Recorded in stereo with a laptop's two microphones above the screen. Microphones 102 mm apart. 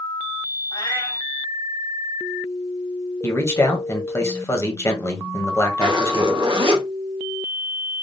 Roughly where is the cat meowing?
Left.